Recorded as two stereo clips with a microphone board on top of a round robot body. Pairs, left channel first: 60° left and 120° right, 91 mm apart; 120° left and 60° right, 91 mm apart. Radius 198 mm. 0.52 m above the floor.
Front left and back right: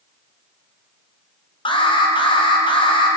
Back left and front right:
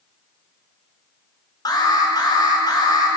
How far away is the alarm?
About 3.5 m.